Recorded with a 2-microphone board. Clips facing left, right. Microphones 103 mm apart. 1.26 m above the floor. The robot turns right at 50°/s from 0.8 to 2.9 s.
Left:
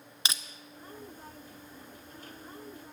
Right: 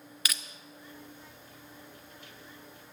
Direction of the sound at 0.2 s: 25° left (ahead or behind).